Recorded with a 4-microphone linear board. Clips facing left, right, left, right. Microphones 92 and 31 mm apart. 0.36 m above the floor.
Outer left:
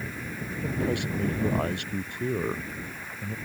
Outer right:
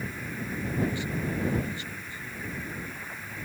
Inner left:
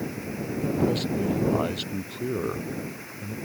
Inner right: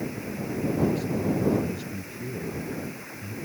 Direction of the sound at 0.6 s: 70° left (ahead or behind).